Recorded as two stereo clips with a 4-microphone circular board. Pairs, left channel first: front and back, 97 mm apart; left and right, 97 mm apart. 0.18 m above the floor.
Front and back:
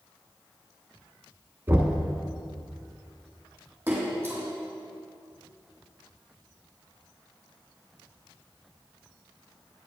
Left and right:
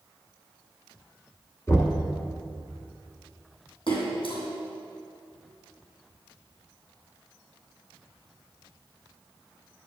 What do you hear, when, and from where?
1.7 s knocking: 125° left, 1.1 m
3.9 s a splash: 110° left, 2.5 m